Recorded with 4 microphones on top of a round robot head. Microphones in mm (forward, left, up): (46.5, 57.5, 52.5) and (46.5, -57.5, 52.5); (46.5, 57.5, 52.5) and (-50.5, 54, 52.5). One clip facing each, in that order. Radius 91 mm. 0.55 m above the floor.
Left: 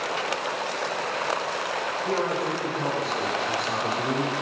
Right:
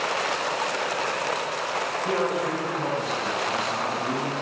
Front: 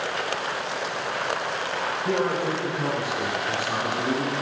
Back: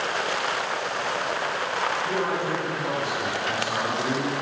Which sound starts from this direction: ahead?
A man speaking, at 2.0 s.